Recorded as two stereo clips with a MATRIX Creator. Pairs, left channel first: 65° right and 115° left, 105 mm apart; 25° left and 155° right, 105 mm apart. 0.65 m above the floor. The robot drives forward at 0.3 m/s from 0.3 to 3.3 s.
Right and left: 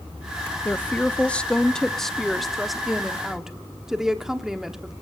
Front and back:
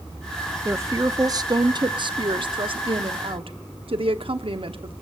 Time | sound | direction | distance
0.7 | a woman speaking | 120° right | 0.7 m